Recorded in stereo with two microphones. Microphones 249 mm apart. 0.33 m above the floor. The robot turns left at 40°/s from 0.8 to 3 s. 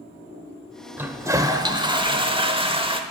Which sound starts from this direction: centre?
A toilet flushing, at 1.0 s.